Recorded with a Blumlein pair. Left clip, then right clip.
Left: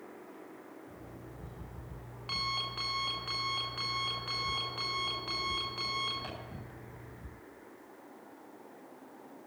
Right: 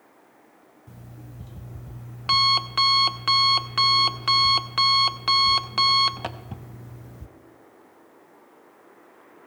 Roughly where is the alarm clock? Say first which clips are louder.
Even; ahead right.